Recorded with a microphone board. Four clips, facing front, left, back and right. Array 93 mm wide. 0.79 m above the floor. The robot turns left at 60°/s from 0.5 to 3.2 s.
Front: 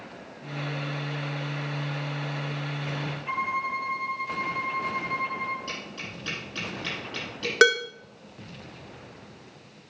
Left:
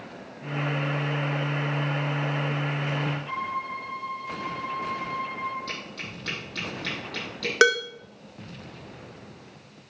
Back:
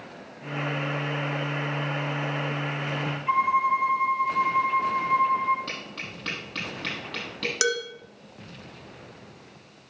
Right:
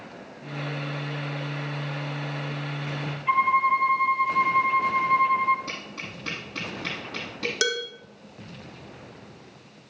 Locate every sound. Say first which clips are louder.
3.3 s a violin: right 10 dB, back 8 dB; 115° right, 0.7 m
5.7 s tapping: even, even; 155° right, 6.5 m
7.6 s dishes clattering: left 9 dB, front 8 dB; 50° left, 0.8 m